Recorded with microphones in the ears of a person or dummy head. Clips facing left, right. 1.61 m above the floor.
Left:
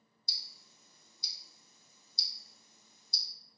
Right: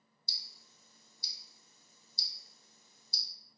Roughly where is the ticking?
Left.